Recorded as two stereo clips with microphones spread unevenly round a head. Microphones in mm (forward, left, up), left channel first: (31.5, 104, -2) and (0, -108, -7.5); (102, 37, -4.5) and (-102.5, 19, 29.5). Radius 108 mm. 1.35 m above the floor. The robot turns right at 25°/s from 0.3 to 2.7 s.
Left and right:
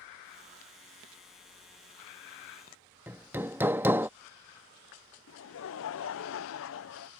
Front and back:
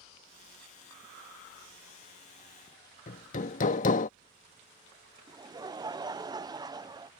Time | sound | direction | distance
3.1 | hammering | 25° right | ?
5.3 | laughter | 110° left | ?